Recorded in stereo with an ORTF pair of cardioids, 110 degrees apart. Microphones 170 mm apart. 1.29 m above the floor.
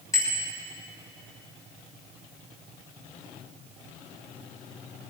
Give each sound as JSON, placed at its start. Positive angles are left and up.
{"t": 0.1, "sound": "a bicycle bell", "azimuth_deg": 20, "distance_m": 6.0}